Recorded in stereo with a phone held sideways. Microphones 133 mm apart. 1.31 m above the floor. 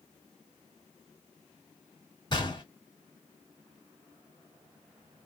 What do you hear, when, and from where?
2.3 s a gunshot: 35° left (ahead or behind), 1.7 m